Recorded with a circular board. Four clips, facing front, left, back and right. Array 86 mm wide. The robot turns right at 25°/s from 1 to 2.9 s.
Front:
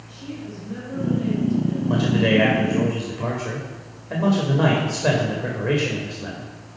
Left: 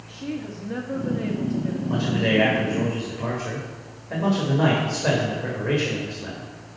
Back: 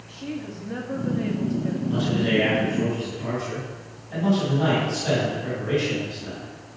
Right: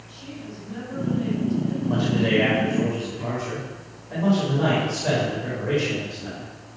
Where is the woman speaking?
125° left, 2.5 m; by 1.8 s 145° left, 2.5 m.